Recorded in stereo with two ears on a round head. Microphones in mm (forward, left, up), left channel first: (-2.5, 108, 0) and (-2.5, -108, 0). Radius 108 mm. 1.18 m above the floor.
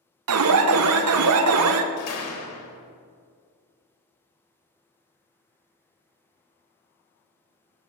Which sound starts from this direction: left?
A door slam, at 2.0 s.